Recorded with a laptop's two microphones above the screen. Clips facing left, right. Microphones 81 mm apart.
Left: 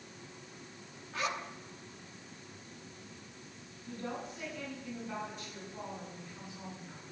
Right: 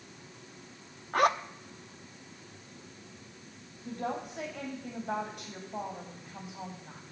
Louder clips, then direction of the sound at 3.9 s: Right 5 dB; 70° right (ahead or behind).